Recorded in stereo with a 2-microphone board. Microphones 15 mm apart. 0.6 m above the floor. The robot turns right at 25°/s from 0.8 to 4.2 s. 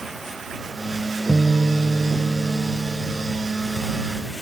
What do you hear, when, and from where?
1.3 s a guitar: 125° left; by 3.4 s 175° left